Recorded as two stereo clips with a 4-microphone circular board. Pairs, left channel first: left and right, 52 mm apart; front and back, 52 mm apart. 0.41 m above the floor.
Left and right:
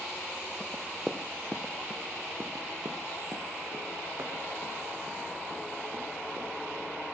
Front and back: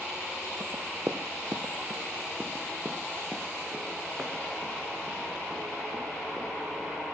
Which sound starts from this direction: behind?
Running footsteps, at 0.6 s.